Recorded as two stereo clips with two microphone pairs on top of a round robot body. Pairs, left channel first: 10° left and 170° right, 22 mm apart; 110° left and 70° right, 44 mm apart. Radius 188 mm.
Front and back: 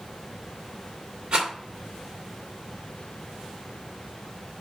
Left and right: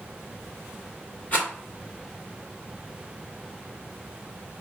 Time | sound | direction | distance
1.3 | a rattle | 160° left | 2 m